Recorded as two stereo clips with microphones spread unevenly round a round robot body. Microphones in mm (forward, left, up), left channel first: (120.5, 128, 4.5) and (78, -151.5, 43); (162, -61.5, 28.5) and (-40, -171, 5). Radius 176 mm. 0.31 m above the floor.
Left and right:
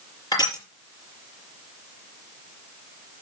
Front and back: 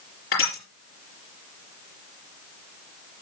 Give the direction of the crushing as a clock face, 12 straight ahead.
12 o'clock.